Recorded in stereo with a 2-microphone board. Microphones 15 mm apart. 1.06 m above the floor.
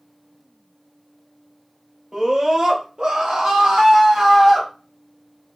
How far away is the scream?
About 1.0 m.